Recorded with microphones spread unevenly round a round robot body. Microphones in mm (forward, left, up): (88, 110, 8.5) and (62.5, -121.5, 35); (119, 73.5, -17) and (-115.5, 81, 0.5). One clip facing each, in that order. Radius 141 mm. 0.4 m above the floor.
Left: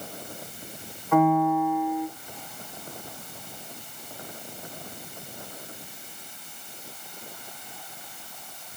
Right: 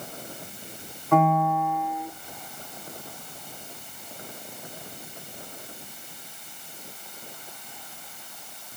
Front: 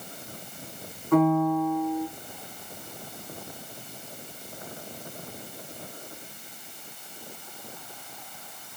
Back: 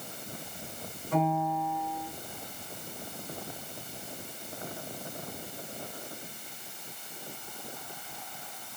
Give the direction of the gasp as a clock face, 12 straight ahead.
I don't hear a gasp.